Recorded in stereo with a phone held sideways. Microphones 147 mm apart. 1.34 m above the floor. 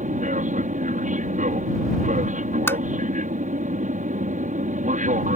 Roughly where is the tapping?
Centre.